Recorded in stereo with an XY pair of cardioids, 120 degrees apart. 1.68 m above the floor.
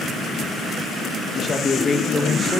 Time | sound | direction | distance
1.3 | a man speaking | 30° left | 1.9 m